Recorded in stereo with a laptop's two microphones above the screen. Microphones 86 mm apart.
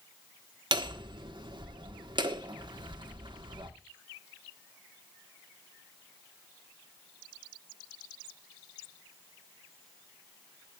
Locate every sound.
0.7 s hammering: 60° right (ahead or behind), 1.2 m